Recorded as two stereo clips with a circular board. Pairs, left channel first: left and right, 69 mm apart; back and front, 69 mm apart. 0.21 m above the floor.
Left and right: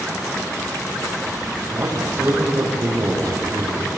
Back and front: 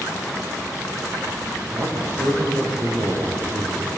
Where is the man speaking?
35° right, 8.5 m; by 3.9 s 25° right, 7 m.